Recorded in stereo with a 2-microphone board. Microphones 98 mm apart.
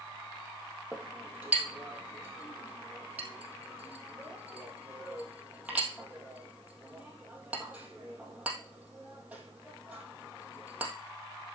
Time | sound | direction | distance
0.9 | a clink | 15° right (ahead or behind) | 3 m